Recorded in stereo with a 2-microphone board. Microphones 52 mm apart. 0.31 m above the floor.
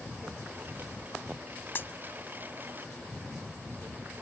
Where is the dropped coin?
45° left (ahead or behind).